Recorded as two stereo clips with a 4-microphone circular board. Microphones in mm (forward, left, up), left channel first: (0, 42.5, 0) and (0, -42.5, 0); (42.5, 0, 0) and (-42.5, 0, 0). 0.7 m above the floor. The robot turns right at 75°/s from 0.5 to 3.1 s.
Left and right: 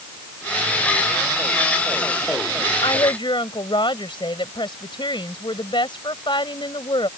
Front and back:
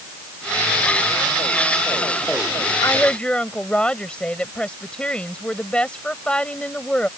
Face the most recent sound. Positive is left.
turn(degrees=80)